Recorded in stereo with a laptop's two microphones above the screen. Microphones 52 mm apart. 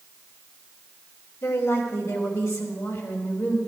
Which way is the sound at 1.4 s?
65° left (ahead or behind).